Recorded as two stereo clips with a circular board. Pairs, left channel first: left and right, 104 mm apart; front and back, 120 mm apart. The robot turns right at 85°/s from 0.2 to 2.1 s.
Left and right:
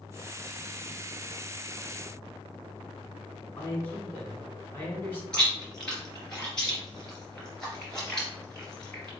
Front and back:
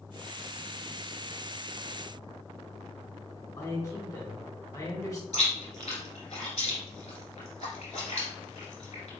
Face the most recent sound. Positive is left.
turn(degrees=5)